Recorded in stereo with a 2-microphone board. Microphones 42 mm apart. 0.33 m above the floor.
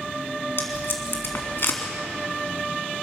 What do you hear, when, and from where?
0.6 s tape being pulled: 55° left (ahead or behind), 3 m